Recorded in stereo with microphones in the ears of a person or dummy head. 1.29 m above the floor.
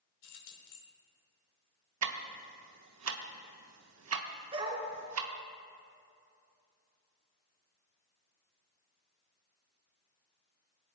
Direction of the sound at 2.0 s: 85° right.